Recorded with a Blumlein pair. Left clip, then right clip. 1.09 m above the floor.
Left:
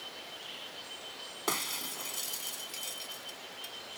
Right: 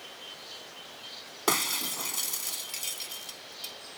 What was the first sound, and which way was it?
Breaking glass, 20° right.